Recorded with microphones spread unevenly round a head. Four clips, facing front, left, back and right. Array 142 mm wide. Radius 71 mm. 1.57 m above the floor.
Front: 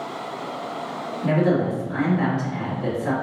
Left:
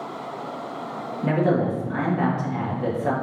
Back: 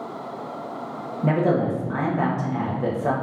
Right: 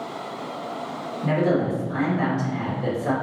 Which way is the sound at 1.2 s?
170° left.